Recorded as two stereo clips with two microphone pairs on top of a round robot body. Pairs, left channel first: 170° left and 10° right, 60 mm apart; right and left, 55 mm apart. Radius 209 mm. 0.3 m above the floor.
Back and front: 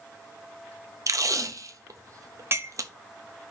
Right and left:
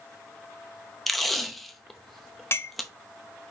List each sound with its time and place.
1.1 s tape being pulled: 5° right, 0.7 m
2.5 s a clink: 55° right, 0.7 m